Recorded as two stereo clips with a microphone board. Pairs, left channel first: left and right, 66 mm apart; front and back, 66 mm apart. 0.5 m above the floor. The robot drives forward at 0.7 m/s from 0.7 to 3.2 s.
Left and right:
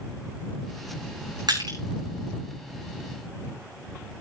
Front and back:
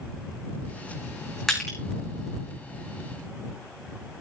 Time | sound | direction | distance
1.5 | crushing | 85° right | 5.5 m